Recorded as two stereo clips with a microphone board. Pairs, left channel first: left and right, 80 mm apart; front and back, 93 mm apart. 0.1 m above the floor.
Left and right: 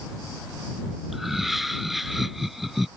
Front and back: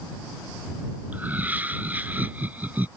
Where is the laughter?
175° right.